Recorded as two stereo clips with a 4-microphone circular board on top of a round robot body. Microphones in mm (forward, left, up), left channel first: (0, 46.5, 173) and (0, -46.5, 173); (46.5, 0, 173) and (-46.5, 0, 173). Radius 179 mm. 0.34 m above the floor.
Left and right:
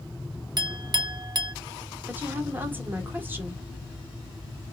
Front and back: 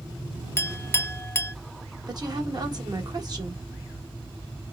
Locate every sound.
0.6 s a clink: 60° right, 0.6 m
2.1 s a woman speaking: 155° right, 1.4 m